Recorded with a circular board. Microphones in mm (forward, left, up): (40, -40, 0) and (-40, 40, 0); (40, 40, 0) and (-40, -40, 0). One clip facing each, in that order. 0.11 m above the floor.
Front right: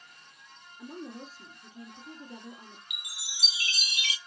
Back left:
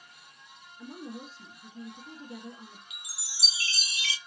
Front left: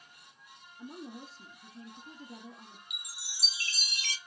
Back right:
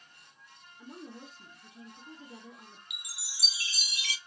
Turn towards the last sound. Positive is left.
turn(degrees=80)